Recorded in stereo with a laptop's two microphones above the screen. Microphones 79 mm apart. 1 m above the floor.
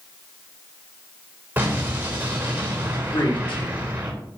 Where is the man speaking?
75° left (ahead or behind), 2.5 m.